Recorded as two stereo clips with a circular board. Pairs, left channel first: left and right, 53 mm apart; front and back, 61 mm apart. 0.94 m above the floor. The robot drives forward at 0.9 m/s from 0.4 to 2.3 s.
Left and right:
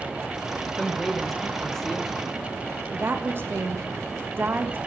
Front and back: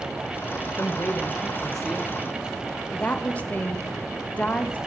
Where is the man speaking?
5° left, 1.2 m; by 2.4 s 170° left, 0.9 m.